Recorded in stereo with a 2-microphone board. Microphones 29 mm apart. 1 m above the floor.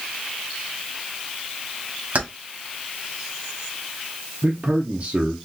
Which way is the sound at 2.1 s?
55° right (ahead or behind).